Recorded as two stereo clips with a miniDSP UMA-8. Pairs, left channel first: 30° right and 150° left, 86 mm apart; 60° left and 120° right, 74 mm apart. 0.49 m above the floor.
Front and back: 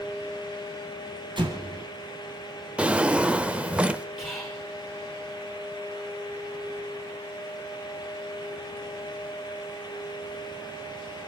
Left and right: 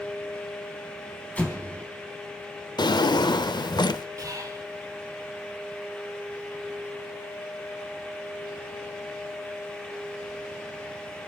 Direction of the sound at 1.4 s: 130° left.